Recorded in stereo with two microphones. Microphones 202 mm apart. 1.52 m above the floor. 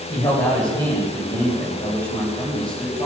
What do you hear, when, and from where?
0.1 s a man speaking: 20° left (ahead or behind), 10 m